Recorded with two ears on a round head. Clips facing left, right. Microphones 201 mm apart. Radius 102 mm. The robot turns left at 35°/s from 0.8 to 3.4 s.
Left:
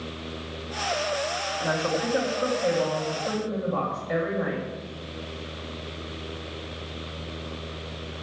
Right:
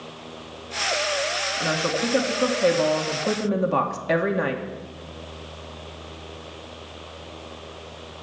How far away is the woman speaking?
About 2 m.